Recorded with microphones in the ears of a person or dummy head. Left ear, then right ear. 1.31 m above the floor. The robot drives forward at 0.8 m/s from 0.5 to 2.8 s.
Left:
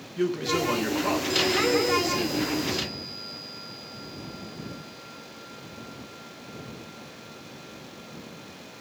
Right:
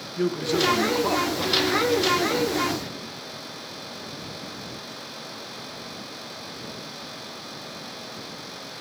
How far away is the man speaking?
About 1.1 m.